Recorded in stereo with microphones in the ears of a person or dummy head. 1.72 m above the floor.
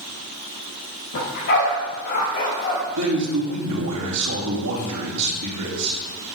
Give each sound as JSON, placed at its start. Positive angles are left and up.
{"t": 1.1, "sound": "a dog barking", "side_deg": 55, "distance_m": 2.5}
{"t": 3.0, "sound": "a man speaking", "side_deg": -90, "distance_m": 2.5}